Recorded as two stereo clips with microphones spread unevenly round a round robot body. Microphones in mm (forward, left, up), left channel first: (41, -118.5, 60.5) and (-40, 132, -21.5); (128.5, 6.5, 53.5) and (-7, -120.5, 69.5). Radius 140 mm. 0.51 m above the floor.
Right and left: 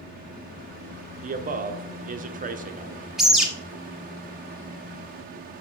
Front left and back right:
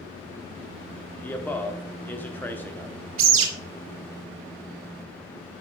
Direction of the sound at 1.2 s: 115° left.